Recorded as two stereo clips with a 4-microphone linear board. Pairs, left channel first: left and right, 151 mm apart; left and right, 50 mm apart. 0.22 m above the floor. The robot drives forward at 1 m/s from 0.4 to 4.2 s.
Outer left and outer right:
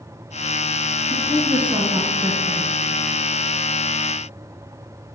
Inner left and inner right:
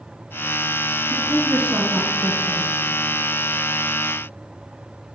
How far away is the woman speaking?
About 2.5 m.